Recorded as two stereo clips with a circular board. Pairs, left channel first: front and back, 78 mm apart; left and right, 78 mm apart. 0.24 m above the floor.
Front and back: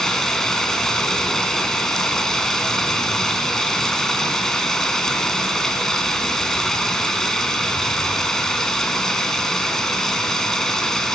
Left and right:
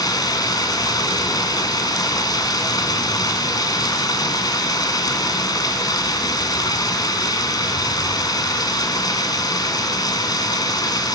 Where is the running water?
85° left, 2 m.